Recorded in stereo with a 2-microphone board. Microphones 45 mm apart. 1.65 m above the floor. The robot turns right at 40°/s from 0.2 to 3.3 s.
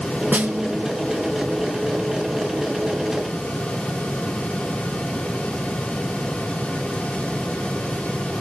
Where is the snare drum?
40° right (ahead or behind), 0.8 m; by 0.9 s 30° right (ahead or behind), 0.8 m.